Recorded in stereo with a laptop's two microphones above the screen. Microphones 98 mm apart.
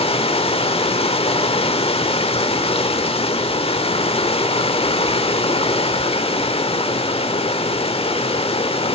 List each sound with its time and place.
0.0 s running water: 80° left, 1.7 m